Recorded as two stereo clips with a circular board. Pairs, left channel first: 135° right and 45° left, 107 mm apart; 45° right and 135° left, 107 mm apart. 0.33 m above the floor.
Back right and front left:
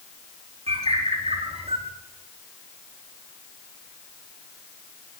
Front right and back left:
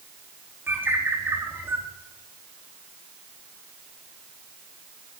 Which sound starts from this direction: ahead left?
A bird, at 0.7 s.